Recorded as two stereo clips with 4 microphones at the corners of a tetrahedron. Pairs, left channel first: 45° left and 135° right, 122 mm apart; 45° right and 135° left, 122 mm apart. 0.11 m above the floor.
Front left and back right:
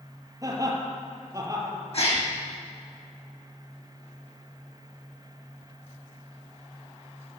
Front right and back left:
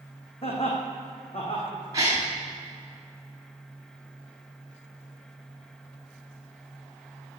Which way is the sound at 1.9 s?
75° left.